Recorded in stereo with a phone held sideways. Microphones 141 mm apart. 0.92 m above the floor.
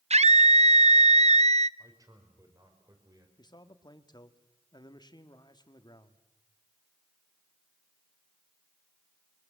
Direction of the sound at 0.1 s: 55° right (ahead or behind).